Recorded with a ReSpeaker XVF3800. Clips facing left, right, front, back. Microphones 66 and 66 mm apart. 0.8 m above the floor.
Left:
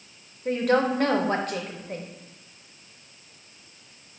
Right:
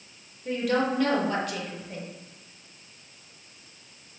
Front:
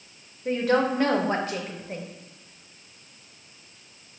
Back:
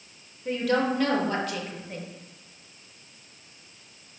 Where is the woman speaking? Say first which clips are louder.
Left 3 dB, front 2 dB; 55° left, 0.7 m.